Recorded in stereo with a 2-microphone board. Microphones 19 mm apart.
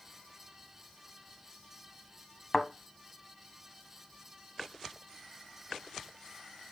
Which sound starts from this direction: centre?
A thud, at 2.5 s.